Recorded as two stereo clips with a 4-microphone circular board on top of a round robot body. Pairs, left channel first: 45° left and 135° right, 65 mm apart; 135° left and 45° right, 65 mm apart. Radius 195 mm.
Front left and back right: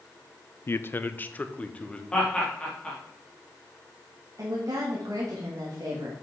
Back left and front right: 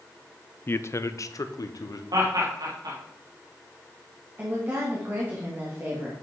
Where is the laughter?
30° right, 3 m.